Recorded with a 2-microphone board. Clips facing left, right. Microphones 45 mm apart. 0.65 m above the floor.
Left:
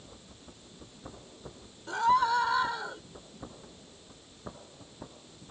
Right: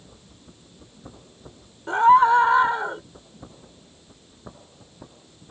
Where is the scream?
40° right (ahead or behind).